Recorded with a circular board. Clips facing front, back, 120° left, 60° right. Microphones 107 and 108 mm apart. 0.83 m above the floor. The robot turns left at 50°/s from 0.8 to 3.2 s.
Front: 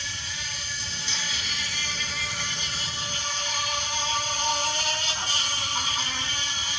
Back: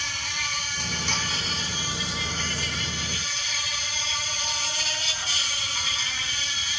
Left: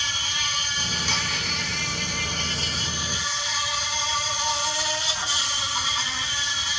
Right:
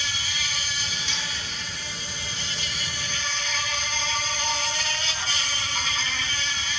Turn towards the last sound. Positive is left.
turn(degrees=40)